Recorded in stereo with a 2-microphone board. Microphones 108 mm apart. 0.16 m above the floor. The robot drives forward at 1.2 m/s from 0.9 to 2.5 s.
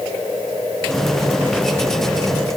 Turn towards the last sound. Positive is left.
No sound to turn to.